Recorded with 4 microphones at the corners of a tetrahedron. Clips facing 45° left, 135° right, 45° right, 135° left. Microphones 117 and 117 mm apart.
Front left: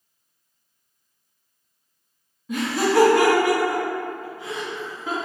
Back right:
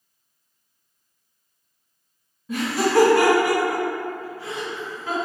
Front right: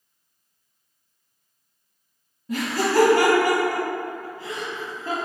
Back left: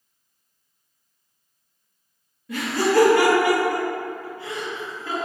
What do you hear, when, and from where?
2.5 s laughter: 50° right, 1.3 m